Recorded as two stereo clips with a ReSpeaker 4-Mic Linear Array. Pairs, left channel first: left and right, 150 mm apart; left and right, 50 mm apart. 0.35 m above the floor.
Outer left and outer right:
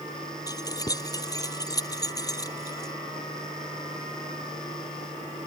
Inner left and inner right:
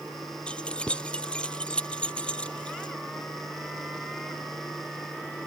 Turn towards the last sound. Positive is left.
turn(degrees=25)  # may be behind; listen again after turning